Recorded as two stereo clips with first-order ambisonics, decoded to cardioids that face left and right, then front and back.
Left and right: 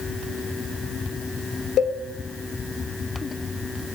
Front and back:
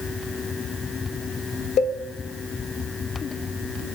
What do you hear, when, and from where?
1.8 s a cowbell: 35° left, 0.7 m